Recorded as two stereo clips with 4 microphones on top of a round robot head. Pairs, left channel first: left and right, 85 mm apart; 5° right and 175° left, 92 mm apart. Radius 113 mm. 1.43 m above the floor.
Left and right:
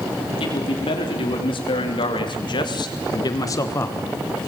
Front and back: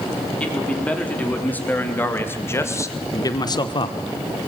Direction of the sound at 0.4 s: 70° left.